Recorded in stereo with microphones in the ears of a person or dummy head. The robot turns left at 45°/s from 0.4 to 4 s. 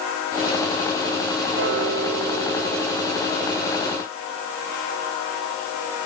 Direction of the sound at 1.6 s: 85° right.